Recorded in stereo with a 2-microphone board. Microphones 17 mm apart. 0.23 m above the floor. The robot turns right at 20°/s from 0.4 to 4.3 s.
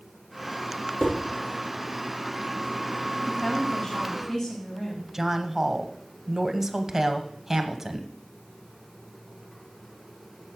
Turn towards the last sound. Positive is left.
turn(degrees=-25)  # may be behind; listen again after turning